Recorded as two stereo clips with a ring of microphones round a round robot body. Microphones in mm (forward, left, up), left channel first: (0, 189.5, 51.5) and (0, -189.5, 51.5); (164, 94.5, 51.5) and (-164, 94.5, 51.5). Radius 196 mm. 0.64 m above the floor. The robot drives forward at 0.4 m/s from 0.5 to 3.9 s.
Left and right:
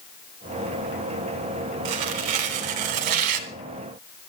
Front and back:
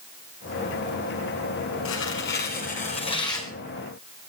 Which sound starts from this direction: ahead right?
Tearing paper, at 1.9 s.